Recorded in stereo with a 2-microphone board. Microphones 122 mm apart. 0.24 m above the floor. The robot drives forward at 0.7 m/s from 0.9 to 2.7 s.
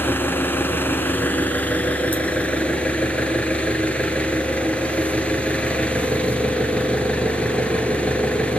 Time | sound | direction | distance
0.0 | an engine running | 15° left (ahead or behind) | 2 m